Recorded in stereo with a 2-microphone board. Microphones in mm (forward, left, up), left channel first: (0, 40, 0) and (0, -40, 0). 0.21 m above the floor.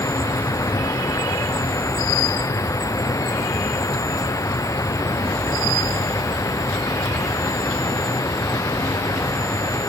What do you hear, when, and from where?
0.0 s an insect: 45° left (ahead or behind)